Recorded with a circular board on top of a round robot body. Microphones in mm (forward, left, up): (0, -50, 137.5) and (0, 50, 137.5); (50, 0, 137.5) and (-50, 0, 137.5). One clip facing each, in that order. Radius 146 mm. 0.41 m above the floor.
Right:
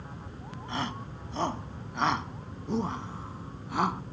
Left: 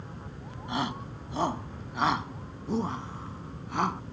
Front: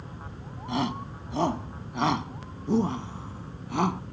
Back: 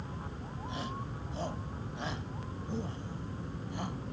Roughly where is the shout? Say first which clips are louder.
Left 3 dB, front 12 dB; ahead.